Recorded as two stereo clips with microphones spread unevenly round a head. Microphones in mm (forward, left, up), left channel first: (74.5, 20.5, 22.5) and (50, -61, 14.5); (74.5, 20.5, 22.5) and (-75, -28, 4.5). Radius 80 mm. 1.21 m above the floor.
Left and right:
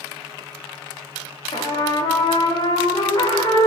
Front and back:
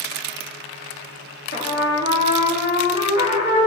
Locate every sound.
1.5 s a trumpet: 50° left, 3 m